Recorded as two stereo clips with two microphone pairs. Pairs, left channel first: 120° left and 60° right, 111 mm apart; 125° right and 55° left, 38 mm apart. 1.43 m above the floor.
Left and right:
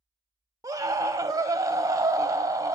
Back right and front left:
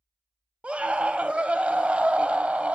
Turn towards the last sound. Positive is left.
turn(degrees=-10)